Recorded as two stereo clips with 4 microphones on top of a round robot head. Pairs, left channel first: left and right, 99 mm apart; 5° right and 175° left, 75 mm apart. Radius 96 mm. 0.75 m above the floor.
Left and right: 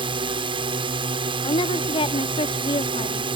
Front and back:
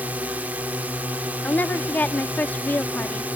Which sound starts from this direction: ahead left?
A woman speaking, at 1.4 s.